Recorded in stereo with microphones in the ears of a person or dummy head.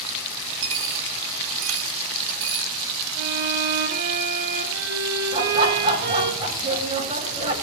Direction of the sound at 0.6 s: 75° right (ahead or behind).